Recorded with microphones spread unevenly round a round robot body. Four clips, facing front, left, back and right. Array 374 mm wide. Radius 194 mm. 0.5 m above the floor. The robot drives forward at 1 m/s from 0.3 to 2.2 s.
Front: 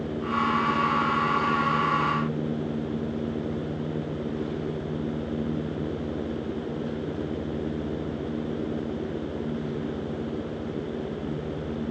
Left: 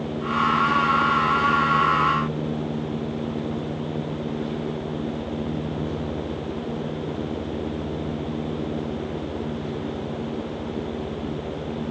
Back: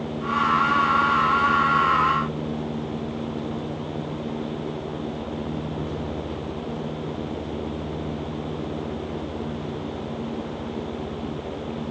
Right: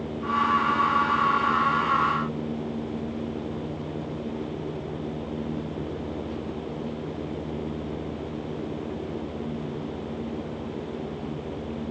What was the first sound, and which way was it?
Only background noise.